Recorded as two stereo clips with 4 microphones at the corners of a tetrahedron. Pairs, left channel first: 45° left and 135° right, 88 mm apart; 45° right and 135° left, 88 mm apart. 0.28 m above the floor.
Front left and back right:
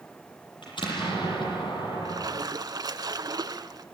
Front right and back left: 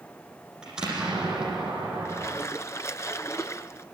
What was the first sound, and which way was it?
An explosion, 55° left.